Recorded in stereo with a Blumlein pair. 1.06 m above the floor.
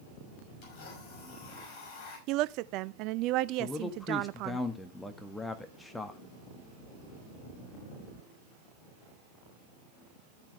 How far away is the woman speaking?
About 0.5 m.